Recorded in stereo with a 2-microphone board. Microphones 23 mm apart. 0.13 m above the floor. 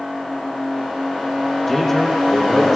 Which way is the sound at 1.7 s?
15° left (ahead or behind).